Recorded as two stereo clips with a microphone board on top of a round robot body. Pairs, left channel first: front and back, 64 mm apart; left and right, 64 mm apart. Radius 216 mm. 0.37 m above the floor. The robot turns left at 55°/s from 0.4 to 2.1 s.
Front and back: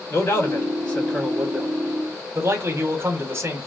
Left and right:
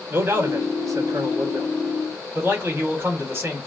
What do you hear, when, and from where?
0.1 s a man speaking: 50° right, 2.5 m; by 3.7 s 145° right, 2.5 m